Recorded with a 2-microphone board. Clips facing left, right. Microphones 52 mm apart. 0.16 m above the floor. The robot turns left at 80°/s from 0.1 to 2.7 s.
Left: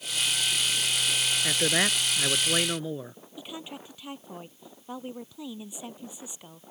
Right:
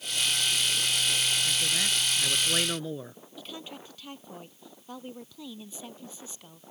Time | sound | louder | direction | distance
1.4 | a man speaking | left 4 dB | 110° left | ?
3.4 | a woman speaking | left 2 dB | 15° left (ahead or behind) | ?